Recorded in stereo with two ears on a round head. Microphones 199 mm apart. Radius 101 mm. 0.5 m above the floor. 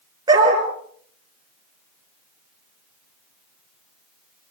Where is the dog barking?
20° right (ahead or behind), 4.5 m.